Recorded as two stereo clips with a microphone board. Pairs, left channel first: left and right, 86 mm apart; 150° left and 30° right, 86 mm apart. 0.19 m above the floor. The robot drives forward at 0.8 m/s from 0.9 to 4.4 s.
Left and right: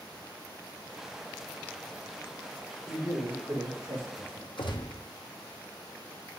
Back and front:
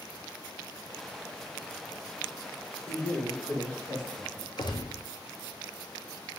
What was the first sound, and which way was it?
A man speaking, 145° right.